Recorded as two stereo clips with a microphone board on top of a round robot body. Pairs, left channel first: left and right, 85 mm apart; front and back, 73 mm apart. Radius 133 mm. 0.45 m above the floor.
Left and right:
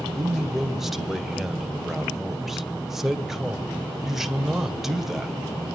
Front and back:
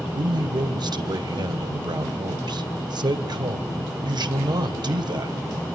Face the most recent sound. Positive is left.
turn(degrees=-175)